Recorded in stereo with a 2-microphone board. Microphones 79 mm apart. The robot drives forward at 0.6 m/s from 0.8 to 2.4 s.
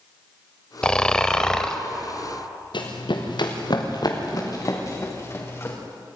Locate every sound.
0.8 s snoring: 10° left (ahead or behind), 1.1 m
2.7 s running footsteps: 80° left, 4 m; by 5.8 s 30° left (ahead or behind), 6 m